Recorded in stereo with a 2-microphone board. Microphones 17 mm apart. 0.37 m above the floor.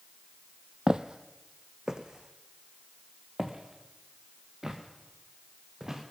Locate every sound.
0.9 s footsteps: 55° right (ahead or behind), 0.7 m; by 6.0 s 30° right (ahead or behind), 3.5 m